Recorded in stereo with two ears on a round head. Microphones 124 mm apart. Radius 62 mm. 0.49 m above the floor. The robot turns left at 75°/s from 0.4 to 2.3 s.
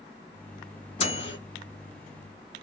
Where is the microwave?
45° left (ahead or behind), 0.9 m; by 1.4 s 40° left (ahead or behind), 0.9 m.